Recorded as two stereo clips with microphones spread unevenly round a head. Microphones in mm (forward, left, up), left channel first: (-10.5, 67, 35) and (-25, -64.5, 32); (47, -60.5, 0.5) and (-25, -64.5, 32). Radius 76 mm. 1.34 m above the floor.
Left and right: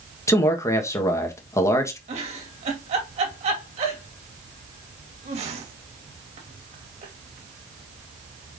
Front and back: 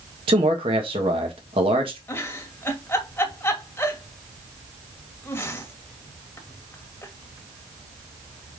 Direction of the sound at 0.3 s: 155° left.